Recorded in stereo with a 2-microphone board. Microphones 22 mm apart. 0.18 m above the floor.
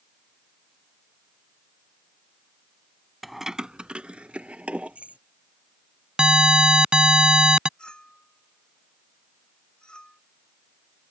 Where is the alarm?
40° right (ahead or behind).